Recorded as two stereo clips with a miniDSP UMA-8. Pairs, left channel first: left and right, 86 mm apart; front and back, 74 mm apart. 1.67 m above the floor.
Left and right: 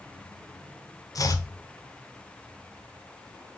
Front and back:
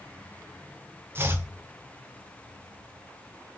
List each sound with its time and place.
1.1 s chopping: 130° left, 0.5 m